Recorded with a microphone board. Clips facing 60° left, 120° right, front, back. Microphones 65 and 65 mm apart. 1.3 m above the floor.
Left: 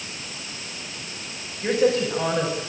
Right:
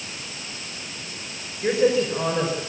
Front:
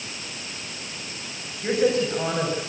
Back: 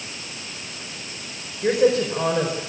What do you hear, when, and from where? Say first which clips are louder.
1.6 s a woman speaking: right 1 dB, back 3 dB; 165° left, 5 m